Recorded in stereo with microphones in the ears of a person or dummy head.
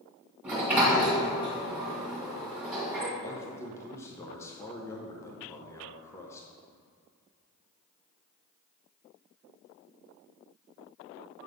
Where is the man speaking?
15° left (ahead or behind), 1.0 m.